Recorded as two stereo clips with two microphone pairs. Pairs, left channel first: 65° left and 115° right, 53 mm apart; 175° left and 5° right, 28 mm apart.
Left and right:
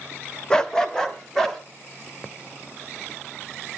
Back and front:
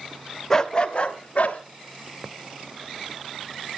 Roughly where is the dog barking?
Behind left.